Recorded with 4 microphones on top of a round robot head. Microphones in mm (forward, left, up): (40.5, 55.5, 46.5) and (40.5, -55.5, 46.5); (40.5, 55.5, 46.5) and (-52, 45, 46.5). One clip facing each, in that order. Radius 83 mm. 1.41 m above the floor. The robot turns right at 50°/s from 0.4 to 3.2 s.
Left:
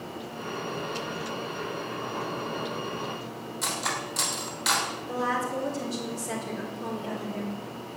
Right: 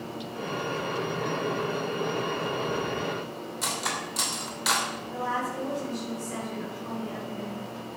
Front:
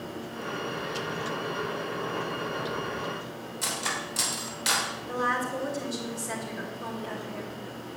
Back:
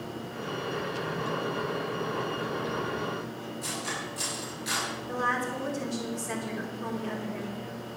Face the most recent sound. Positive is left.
turn(degrees=90)